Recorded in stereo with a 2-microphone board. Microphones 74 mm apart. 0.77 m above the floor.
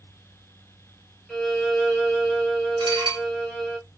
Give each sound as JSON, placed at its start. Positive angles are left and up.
{"t": 1.3, "sound": "a violin", "side_deg": 10, "distance_m": 1.6}
{"t": 2.8, "sound": "dishes clattering", "side_deg": -80, "distance_m": 0.9}